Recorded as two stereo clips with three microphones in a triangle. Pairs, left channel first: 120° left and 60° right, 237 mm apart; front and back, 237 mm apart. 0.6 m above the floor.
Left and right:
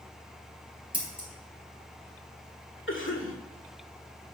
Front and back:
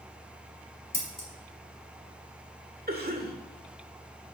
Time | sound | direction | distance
0.9 | scissors | 130° right | 3 m
2.9 | a cough | 140° left | 1.9 m